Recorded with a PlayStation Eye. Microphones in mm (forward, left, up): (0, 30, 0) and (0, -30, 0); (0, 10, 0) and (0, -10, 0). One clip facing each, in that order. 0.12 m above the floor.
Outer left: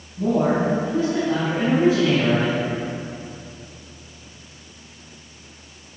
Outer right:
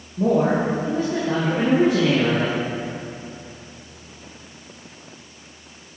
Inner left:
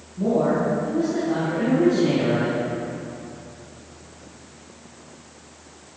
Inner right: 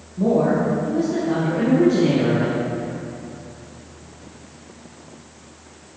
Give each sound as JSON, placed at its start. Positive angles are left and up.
{"t": 0.2, "sound": "a woman speaking", "side_deg": -60, "distance_m": 3.0}